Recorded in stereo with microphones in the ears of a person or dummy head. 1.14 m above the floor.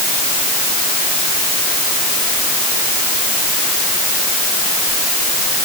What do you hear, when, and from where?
Only background noise.